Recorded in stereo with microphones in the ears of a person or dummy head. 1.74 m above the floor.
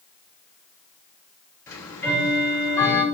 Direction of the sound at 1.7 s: 5° left (ahead or behind).